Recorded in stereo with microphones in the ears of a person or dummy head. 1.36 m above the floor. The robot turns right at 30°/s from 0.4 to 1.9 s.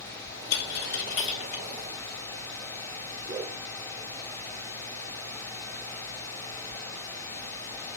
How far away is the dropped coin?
About 2.5 m.